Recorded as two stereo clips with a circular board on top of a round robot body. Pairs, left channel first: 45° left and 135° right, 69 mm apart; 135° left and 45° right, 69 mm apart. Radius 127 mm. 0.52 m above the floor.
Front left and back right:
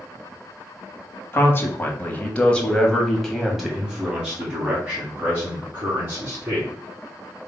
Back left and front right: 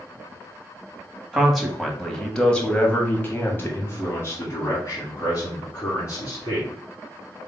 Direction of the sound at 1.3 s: 30° left.